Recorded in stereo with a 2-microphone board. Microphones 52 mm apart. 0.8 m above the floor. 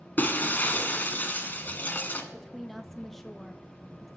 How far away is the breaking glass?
About 0.9 m.